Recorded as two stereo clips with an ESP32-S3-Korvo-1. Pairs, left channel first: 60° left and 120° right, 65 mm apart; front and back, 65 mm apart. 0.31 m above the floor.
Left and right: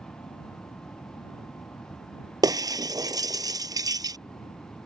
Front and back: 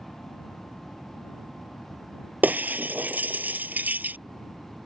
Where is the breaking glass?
115° right.